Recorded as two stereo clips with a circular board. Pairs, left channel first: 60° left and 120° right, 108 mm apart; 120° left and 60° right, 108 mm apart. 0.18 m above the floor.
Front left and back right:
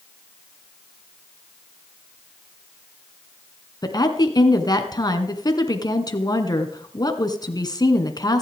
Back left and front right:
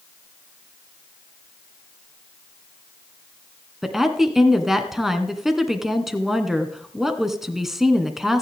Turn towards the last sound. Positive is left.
turn(degrees=25)